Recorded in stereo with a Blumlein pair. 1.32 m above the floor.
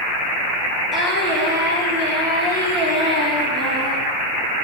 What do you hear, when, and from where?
0.9 s singing: straight ahead, 4.5 m